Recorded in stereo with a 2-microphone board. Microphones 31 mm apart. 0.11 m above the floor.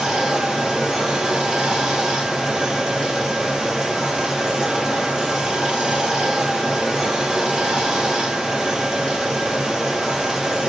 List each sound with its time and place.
0.0 s running water: 20° right (ahead or behind), 1.7 m